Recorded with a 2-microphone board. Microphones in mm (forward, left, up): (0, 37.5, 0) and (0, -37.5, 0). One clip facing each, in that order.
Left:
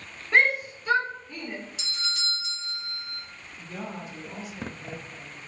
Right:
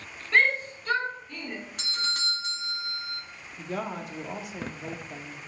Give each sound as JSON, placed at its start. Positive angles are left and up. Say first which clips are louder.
{"t": 0.3, "sound": "a shout", "louder": "left 1 dB", "side_deg": 20, "distance_m": 2.5}
{"t": 1.8, "sound": "a doorbell", "louder": "right 3 dB", "side_deg": -50, "distance_m": 1.4}
{"t": 3.6, "sound": "a woman speaking", "louder": "right 4 dB", "side_deg": -80, "distance_m": 1.8}